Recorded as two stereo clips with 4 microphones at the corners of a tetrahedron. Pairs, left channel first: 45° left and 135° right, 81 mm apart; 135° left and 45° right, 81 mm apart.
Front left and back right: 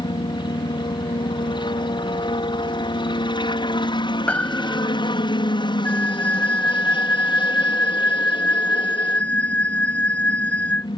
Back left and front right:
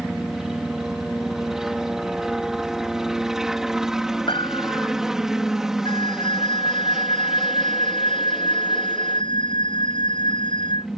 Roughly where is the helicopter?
Ahead left.